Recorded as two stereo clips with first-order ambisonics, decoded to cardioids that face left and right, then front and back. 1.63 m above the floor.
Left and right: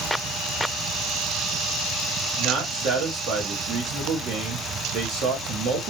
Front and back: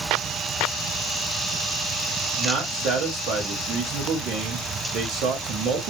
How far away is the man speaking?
About 0.9 m.